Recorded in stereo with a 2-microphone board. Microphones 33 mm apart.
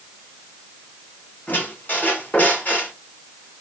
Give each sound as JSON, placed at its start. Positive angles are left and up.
{"t": 1.5, "sound": "a squeak", "side_deg": 60, "distance_m": 2.0}